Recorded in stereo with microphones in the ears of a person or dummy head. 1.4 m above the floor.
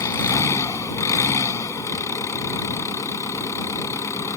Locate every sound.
0.0 s an engine running: 15° left (ahead or behind)